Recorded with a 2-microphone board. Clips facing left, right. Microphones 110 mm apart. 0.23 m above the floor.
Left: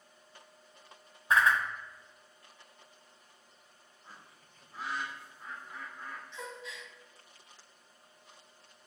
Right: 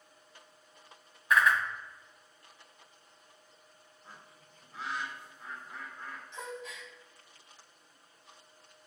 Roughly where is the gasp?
Right.